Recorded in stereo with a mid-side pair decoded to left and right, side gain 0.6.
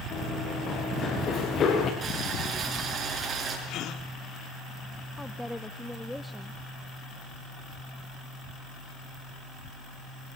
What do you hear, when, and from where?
0.1 s running footsteps: 45° left, 5.5 m
2.0 s boiling: 40° right, 7 m
3.7 s a gasp: 60° left, 2 m
5.2 s a woman speaking: 5° left, 0.8 m